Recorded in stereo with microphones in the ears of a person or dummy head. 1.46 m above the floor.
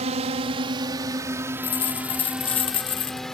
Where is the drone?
35° right (ahead or behind); by 3.3 s centre (ahead or behind).